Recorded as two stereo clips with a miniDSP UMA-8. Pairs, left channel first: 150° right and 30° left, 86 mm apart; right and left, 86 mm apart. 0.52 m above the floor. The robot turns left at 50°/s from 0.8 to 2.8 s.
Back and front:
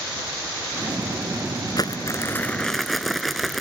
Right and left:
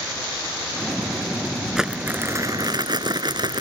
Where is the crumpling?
175° left; by 3.6 s 120° left.